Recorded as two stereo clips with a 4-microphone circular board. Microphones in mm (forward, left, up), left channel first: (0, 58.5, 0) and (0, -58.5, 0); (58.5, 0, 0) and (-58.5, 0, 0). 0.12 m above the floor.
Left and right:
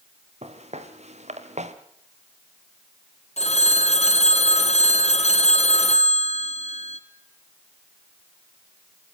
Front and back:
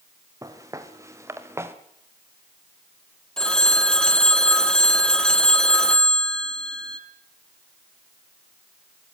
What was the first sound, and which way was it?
Footsteps, 115° right.